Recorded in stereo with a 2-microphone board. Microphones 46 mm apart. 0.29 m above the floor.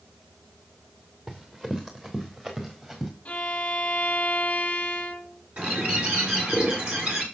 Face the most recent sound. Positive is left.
turn(degrees=-30)  # may be behind; listen again after turning